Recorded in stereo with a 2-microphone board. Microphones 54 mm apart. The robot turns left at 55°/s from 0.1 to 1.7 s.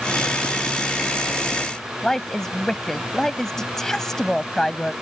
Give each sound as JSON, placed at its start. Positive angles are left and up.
{"t": 2.0, "sound": "a woman speaking", "side_deg": 10}